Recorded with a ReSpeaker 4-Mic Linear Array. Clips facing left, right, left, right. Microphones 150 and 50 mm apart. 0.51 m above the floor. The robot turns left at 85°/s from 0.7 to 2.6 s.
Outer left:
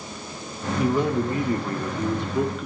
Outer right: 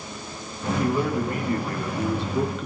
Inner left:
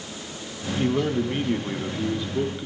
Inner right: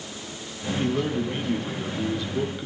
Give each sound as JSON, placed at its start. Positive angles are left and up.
{"t": 0.8, "sound": "a man speaking", "side_deg": 10, "distance_m": 0.9}